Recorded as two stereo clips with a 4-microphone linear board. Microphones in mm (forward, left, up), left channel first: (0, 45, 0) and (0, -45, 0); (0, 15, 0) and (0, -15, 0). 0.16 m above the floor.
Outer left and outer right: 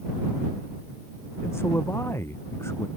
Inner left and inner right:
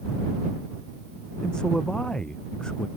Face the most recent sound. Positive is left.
turn(degrees=30)  # may be behind; listen again after turning